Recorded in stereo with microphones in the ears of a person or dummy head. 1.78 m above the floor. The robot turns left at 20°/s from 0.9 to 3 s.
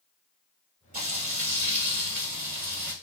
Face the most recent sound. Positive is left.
turn(degrees=-105)